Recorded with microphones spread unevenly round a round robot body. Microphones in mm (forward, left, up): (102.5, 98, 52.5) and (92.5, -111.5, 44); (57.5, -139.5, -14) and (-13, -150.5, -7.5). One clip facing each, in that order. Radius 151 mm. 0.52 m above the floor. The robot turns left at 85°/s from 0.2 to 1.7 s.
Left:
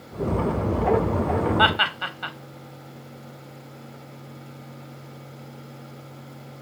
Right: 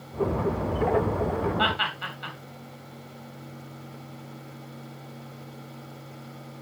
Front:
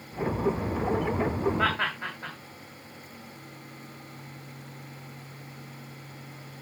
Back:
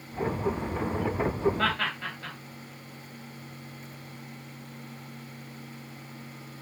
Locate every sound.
1.6 s laughter: 90° left, 1.6 m; by 2.4 s 80° left, 1.6 m